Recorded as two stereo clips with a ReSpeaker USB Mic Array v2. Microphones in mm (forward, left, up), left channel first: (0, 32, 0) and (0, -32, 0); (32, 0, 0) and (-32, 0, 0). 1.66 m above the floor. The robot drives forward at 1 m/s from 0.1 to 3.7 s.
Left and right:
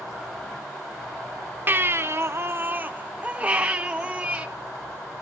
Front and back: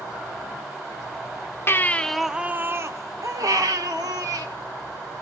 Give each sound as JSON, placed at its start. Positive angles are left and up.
{"t": 1.7, "sound": "a baby crying", "azimuth_deg": -40, "distance_m": 0.9}